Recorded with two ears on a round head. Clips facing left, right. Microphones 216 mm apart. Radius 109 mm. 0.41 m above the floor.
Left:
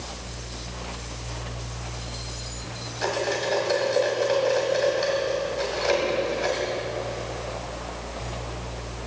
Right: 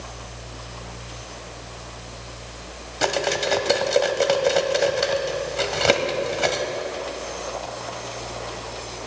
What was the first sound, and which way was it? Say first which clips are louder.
Cutlery clinking: right 2 dB; 70° right (ahead or behind).